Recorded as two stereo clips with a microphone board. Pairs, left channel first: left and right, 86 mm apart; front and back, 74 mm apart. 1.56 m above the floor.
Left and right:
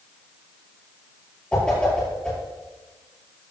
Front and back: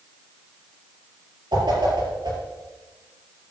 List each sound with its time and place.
1.5 s a whoosh: 170° left, 4.5 m